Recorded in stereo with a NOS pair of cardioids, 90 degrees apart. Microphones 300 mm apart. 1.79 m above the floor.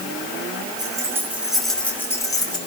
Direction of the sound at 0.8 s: 15° right.